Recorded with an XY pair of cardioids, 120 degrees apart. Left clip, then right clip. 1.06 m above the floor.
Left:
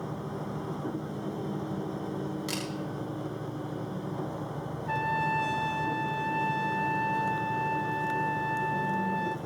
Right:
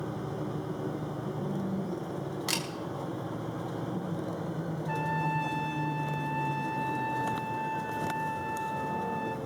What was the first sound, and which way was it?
A camera shutter, 30° right.